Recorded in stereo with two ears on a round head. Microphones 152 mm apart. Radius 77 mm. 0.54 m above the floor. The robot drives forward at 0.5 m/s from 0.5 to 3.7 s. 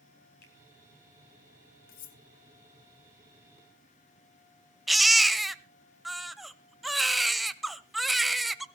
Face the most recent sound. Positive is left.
turn(degrees=0)  # may be behind; listen again after turning